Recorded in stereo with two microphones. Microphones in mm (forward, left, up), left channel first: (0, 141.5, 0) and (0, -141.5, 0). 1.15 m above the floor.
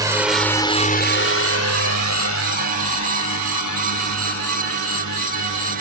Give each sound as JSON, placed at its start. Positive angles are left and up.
{"t": 0.0, "sound": "a drone", "side_deg": -10}